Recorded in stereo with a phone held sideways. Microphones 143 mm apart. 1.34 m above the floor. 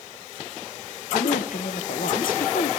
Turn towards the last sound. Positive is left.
turn(degrees=80)